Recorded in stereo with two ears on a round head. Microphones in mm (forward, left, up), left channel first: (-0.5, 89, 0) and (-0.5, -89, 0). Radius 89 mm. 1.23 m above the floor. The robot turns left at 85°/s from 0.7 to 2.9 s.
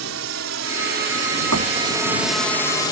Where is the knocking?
80° right; by 1.8 s 55° right (ahead or behind).